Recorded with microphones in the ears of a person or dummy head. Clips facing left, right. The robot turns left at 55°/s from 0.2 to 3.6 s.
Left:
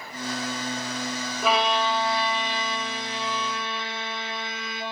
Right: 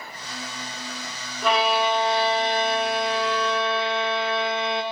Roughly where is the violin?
Ahead.